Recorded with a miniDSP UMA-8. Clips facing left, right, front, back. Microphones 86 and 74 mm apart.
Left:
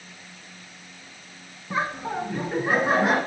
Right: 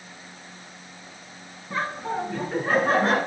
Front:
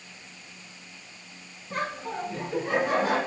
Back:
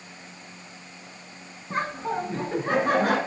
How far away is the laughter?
About 1.2 m.